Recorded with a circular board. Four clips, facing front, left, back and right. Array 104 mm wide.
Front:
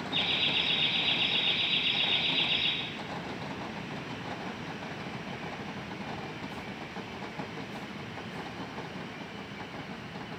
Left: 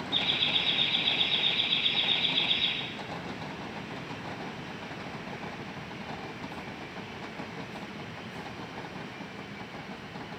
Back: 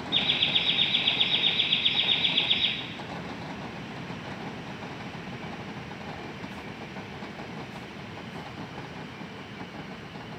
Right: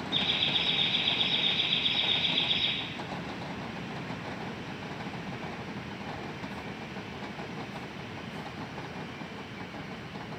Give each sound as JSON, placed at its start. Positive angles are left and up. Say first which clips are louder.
{"t": 0.1, "sound": "laughter", "louder": "even, back 2 dB", "azimuth_deg": -175, "distance_m": 7.0}